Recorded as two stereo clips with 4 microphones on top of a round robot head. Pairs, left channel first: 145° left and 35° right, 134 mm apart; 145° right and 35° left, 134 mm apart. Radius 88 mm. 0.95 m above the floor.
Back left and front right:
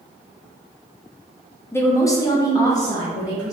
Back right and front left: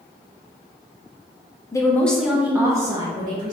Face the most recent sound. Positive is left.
turn(degrees=80)